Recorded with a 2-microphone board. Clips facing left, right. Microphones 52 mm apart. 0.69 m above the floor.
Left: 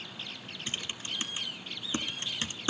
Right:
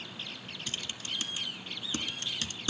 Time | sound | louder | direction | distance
0.7 | typing on a keyboard | left 1 dB | 25° left (ahead or behind) | 1.4 m